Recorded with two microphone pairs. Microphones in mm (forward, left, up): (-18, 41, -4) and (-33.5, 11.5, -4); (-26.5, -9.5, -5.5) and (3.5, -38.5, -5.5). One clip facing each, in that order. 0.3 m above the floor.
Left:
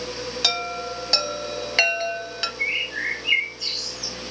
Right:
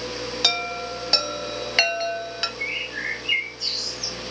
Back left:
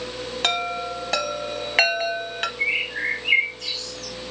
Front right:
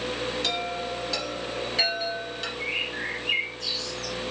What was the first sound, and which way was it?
A chime, 155° left.